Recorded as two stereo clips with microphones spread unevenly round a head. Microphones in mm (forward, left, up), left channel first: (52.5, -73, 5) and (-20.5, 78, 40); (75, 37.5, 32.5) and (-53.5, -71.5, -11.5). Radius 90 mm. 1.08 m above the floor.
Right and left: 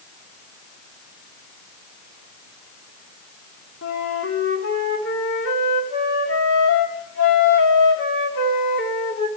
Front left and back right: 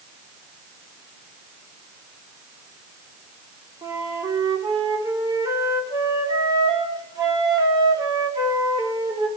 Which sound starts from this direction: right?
A flute, at 3.8 s.